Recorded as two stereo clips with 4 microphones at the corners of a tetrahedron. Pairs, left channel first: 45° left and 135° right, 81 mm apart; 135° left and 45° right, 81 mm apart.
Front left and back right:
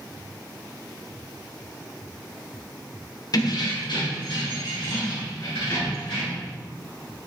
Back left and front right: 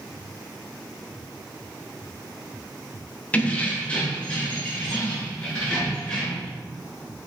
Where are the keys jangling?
65° left, 0.6 m; by 6.5 s 60° left, 3 m.